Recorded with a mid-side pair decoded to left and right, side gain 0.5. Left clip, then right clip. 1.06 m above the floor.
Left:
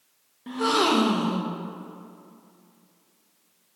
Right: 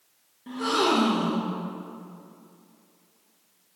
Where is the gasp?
35° left, 1.0 m.